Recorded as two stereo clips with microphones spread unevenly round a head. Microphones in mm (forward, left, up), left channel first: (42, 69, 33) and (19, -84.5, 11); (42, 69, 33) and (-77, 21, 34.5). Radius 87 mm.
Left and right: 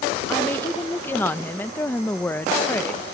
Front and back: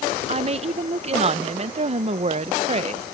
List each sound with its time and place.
0.3 s a woman speaking: 165° left